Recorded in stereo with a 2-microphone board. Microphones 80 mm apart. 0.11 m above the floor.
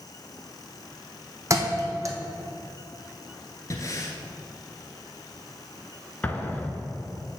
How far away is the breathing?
About 1.2 m.